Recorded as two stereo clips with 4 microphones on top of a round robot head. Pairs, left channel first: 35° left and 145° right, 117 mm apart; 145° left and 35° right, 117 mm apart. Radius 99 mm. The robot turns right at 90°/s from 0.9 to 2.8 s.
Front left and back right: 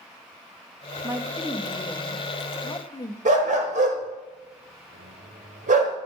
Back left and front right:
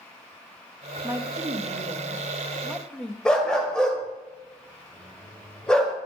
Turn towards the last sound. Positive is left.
turn(degrees=-135)